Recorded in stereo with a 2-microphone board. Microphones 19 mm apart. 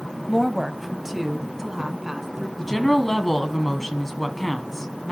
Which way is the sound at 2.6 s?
10° left (ahead or behind).